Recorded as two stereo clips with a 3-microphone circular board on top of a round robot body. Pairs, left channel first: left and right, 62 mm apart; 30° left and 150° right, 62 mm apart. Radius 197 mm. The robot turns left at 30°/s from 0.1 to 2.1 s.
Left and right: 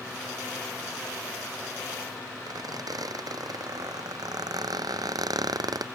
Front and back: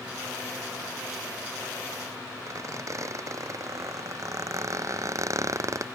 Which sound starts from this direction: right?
A squeak, at 2.5 s.